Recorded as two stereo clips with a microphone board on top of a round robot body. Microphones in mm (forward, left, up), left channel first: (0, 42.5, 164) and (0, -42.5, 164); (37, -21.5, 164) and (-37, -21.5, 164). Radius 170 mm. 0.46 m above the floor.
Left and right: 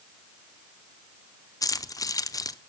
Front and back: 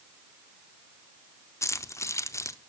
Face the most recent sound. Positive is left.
turn(degrees=45)